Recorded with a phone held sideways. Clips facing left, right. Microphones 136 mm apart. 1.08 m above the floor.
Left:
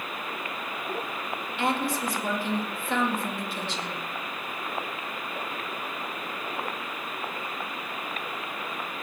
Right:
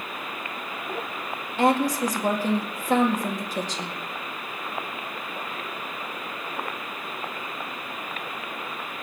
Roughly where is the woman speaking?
Right.